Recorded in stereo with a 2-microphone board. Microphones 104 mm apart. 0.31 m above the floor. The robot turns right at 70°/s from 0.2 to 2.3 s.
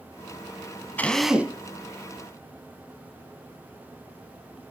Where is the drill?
165° left, 1.1 m; by 1.6 s 155° right, 1.1 m.